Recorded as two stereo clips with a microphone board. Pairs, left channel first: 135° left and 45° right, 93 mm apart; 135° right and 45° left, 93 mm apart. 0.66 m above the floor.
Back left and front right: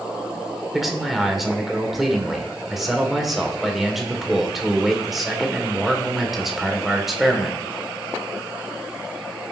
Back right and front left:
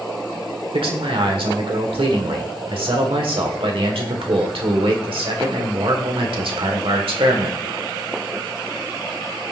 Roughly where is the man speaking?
Ahead left.